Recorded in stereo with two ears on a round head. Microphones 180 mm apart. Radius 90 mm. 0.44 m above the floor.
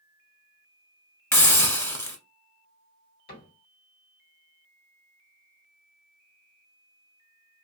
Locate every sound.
1.3 s a hiss: 15° left (ahead or behind), 0.8 m
3.3 s a cupboard door: 50° left (ahead or behind), 1.8 m